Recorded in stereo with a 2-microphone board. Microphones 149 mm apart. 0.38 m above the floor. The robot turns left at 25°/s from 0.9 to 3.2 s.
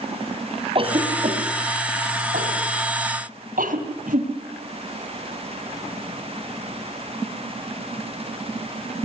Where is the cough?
40° right (ahead or behind), 2.5 m; by 4.3 s 65° right (ahead or behind), 2.5 m.